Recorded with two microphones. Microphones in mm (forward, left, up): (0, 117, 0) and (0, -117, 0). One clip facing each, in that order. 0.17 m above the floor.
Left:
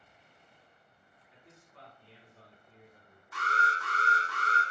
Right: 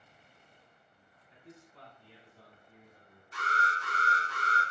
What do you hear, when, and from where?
1.3 s a man speaking: 30° right (ahead or behind), 1.9 m; by 3.2 s 10° right (ahead or behind), 2.5 m
3.3 s an alarm: 25° right (ahead or behind), 1.5 m